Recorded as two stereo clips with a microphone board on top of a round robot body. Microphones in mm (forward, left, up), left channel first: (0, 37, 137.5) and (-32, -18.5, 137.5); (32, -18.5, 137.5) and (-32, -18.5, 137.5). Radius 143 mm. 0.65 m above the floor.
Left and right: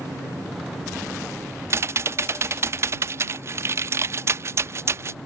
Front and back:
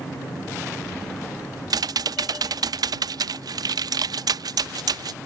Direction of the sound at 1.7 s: 165° right.